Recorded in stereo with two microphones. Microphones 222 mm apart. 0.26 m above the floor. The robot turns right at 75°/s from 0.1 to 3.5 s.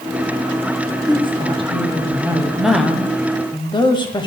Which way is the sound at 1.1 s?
20° right (ahead or behind).